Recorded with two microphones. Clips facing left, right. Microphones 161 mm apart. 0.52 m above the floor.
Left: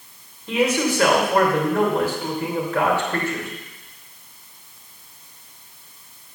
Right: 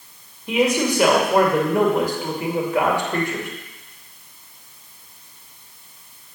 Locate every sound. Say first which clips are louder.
0.5 s a man speaking: right 1 dB; 15° right (ahead or behind), 2.5 m